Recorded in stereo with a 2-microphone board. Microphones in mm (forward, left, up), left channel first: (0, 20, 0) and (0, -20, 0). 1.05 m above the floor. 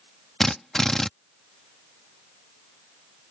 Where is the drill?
10° left (ahead or behind).